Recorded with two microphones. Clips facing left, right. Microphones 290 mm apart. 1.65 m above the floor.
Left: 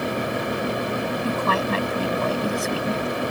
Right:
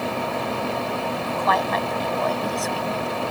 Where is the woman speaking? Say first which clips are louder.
Left 1 dB; 35° left (ahead or behind); by 3.1 s 30° left (ahead or behind).